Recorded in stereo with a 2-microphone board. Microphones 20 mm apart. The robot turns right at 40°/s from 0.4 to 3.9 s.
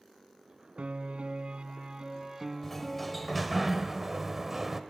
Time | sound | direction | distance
0.8 | a piano | 85° right | 1.2 m
2.6 | a sliding door | 160° left | 1.1 m